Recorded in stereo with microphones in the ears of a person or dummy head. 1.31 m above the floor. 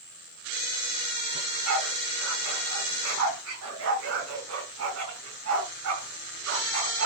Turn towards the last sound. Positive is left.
turn(degrees=-80)